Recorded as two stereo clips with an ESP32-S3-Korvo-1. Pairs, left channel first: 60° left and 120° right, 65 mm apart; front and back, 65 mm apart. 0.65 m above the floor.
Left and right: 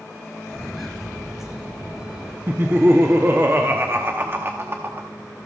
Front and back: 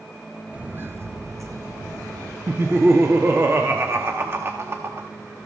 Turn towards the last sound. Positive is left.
turn(degrees=-155)